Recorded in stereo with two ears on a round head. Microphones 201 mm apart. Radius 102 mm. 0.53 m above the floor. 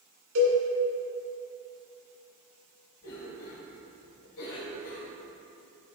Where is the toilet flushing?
No toilet flushing in this recording.